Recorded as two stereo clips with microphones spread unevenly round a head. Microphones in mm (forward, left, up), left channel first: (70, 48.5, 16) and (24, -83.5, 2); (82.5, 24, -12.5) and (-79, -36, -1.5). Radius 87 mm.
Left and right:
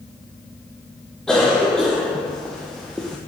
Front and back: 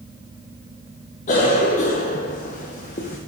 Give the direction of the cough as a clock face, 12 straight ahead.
1 o'clock.